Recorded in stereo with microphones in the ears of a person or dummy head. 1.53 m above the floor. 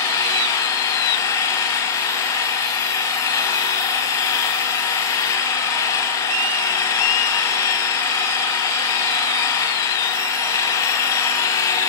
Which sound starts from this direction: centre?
An engine running, at 0.0 s.